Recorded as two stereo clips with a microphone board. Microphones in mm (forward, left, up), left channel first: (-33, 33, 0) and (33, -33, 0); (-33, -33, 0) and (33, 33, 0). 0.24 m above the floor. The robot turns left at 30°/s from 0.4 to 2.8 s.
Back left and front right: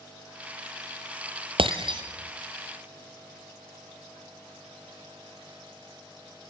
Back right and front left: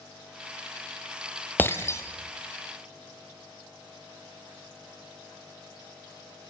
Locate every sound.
1.6 s breaking glass: 65° right, 2 m; by 2.0 s 80° right, 2 m